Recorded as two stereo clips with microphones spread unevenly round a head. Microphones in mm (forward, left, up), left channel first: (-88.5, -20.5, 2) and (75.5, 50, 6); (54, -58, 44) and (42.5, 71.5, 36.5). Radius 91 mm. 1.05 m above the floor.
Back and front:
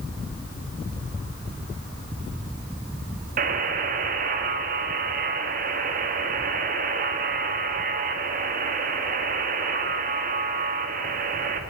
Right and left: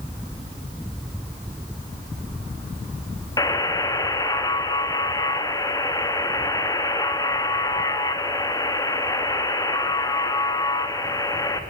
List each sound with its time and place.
3.4 s a buzzer: 20° right, 2.5 m